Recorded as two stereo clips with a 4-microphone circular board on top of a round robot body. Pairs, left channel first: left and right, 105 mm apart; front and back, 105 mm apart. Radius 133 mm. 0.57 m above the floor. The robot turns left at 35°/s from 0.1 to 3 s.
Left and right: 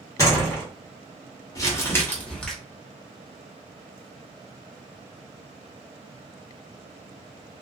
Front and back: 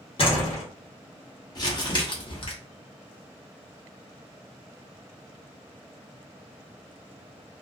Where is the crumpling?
40° left, 1.1 m; by 2.5 s 10° left, 1.1 m.